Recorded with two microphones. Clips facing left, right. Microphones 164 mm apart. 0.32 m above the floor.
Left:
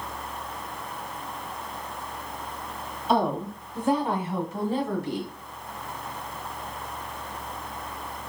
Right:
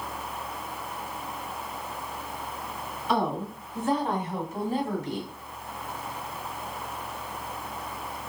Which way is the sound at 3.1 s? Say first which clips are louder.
Left 3 dB; 25° left (ahead or behind).